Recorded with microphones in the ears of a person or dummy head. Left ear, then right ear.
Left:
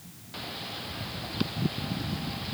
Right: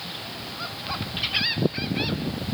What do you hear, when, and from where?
Only background noise.